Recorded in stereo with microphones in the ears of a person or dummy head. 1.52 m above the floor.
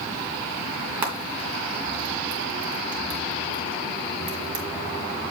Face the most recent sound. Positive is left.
turn(degrees=-30)  # may be behind; listen again after turning